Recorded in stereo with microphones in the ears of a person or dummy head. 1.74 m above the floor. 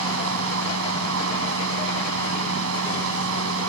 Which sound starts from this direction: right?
A fan, at 0.0 s.